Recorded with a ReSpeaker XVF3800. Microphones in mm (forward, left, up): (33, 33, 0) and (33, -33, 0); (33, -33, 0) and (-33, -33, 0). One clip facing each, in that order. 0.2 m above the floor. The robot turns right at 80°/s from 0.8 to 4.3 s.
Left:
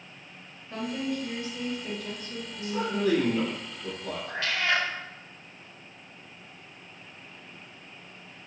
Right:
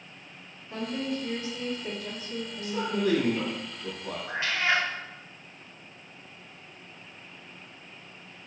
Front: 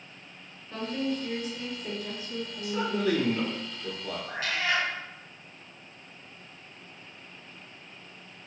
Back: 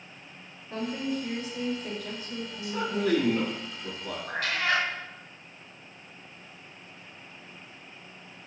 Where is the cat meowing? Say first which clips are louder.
Right 1 dB, back 2 dB; 155° right, 0.6 m; by 4.9 s 150° right, 0.6 m.